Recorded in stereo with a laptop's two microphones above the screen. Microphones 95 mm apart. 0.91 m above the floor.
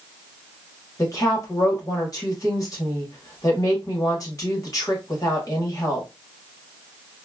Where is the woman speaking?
35° left (ahead or behind), 1.3 m.